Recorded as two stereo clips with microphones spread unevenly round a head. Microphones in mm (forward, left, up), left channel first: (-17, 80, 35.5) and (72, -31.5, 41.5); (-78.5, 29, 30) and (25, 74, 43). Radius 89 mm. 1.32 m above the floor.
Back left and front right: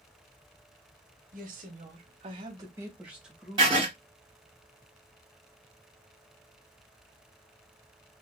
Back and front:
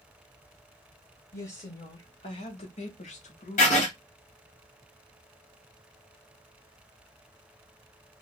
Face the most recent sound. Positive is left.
turn(degrees=-120)